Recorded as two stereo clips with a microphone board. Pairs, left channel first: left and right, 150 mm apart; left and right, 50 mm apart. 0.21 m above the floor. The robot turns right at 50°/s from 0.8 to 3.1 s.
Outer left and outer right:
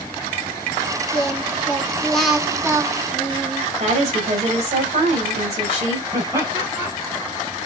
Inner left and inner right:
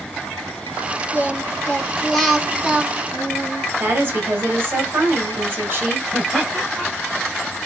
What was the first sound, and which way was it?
Singing, 125° left.